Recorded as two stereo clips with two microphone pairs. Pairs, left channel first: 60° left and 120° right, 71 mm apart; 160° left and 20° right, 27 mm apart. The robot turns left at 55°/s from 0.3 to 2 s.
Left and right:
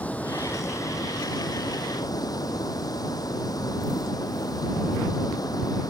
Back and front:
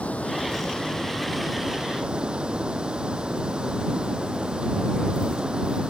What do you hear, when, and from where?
0.0 s running water: 130° left; by 5.9 s 35° left